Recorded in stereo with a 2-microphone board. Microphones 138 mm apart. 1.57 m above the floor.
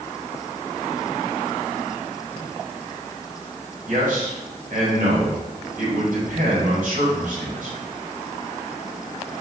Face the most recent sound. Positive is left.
turn(degrees=-65)  # may be behind; listen again after turning